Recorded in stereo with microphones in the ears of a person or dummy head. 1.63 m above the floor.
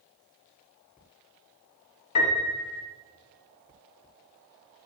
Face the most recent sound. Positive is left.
turn(degrees=80)